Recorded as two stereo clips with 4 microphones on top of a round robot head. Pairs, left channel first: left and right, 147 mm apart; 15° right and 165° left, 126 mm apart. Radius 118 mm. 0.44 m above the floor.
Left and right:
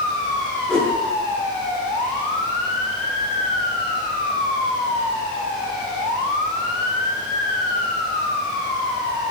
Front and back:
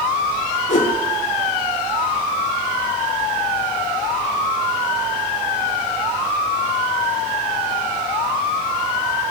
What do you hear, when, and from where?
0.7 s a whoosh: 5° left, 8 m